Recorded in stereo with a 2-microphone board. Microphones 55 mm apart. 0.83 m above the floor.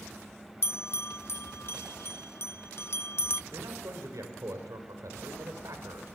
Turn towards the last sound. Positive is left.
turn(degrees=-80)